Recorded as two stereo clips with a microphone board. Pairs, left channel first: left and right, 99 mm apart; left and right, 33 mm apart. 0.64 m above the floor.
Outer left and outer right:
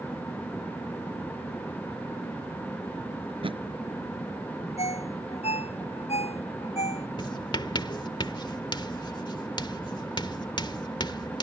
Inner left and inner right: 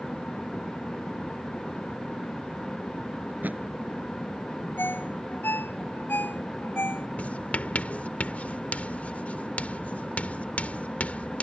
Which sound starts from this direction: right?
A thud, at 3.3 s.